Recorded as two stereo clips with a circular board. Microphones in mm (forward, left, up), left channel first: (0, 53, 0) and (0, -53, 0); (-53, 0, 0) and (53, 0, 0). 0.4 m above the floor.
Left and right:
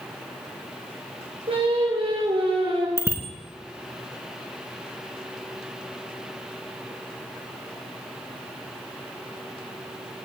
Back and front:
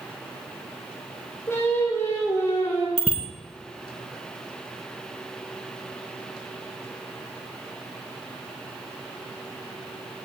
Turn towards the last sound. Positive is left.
turn(degrees=-25)